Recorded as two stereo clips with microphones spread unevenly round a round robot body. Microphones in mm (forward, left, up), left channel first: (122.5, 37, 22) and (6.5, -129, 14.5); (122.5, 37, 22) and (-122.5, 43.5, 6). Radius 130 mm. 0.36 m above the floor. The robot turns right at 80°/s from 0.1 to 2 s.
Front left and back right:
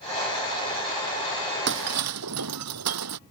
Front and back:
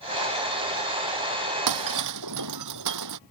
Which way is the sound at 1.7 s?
Straight behind.